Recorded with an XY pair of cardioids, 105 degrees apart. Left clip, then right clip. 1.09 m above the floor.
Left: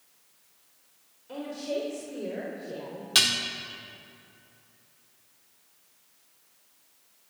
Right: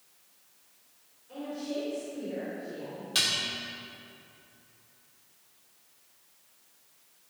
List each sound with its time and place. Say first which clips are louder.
1.3 s a woman speaking: left 4 dB; 65° left, 3.5 m
3.1 s dishes clattering: left 5 dB; 50° left, 1.8 m